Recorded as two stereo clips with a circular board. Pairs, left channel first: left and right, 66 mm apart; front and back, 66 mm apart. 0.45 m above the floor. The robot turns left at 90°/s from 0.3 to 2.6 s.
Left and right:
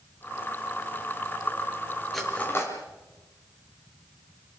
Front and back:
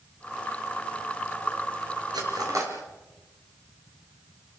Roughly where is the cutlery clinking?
Behind.